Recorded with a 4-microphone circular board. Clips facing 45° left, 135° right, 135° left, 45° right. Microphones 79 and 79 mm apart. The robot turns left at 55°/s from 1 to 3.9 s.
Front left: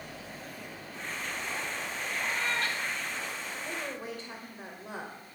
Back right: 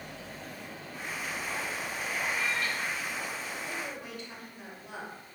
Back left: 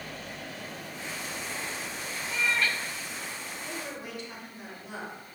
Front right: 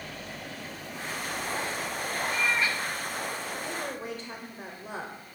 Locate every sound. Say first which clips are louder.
2.3 s a cat meowing: front left 1 dB, even; 45° left, 0.6 m; by 2.8 s 20° left, 0.6 m
3.6 s a woman speaking: front left 1 dB, front right 4 dB; 10° left, 1.9 m; by 5.2 s 5° right, 1.9 m